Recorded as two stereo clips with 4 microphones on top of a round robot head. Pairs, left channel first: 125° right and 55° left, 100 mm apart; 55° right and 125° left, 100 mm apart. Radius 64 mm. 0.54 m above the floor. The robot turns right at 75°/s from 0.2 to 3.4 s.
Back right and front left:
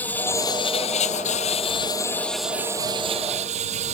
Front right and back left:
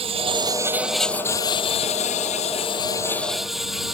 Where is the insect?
160° left; by 4.0 s 40° left.